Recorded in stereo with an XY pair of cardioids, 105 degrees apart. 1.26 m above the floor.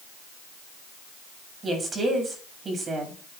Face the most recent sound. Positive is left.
turn(degrees=-40)